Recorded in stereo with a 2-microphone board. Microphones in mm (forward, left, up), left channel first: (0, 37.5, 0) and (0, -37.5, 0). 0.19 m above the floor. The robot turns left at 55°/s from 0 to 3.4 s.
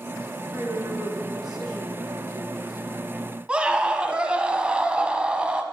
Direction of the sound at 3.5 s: 15° right (ahead or behind).